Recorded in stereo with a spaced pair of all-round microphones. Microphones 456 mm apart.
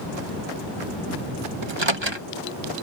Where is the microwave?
75° right (ahead or behind).